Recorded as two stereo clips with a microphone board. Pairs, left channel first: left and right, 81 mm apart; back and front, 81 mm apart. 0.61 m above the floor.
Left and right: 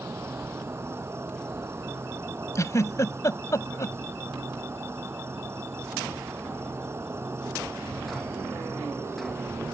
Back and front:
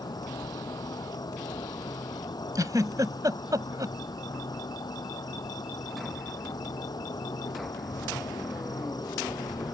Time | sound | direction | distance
0.0 | an insect | 145° right | ?
2.5 | a giggle | 40° left | ?